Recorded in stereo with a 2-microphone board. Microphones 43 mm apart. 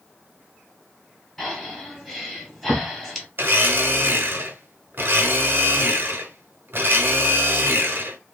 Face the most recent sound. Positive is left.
turn(degrees=-50)  # may be behind; listen again after turning